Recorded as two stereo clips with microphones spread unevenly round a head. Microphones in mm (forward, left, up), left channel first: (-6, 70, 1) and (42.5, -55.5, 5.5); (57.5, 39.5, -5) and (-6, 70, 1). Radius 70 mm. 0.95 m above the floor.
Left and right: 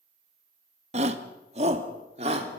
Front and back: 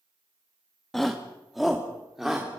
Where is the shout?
110° right, 1.7 m; by 2.6 s 120° right, 3.5 m.